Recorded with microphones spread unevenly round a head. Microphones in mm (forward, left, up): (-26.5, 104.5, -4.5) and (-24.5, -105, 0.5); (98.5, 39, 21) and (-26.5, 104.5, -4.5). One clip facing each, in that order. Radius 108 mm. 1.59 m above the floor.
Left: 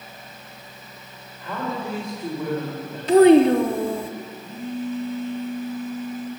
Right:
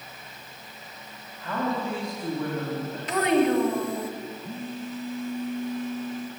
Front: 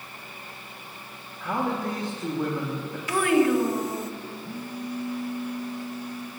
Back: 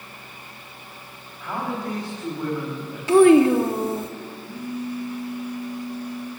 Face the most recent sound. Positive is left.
turn(degrees=-90)